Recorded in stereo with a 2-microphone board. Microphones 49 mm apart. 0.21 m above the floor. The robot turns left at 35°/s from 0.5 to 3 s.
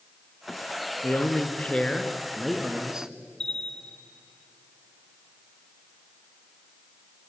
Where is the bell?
10° left (ahead or behind), 0.9 m.